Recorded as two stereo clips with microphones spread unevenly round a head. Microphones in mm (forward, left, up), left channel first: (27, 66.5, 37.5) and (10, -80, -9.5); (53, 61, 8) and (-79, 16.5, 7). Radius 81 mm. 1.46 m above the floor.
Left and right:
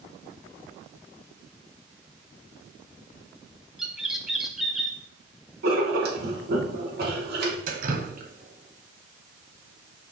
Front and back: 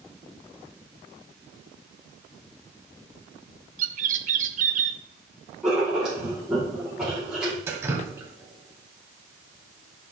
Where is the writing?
75° right, 3 m.